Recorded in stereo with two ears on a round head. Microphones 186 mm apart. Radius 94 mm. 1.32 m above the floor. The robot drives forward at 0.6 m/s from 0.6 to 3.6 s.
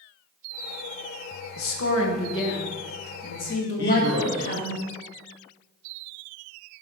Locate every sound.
1.6 s a woman speaking: 75° left (ahead or behind), 1.4 m; by 4.8 s 45° left (ahead or behind), 1.9 m
3.8 s a man speaking: 55° left (ahead or behind), 1.6 m